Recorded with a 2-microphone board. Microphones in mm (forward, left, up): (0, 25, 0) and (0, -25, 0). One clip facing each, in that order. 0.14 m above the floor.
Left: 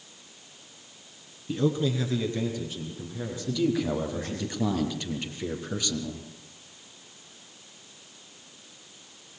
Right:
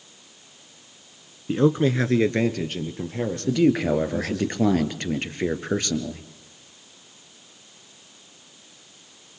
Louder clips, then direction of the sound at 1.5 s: Right 6 dB; 35° right (ahead or behind).